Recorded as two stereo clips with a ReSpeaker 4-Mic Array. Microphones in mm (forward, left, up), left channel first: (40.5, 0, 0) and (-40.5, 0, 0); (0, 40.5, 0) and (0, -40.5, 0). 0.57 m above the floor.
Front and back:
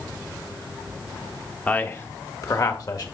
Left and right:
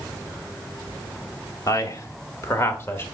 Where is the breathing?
No breathing in this recording.